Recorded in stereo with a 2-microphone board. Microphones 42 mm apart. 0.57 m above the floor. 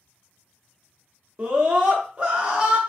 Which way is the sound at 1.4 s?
20° right (ahead or behind).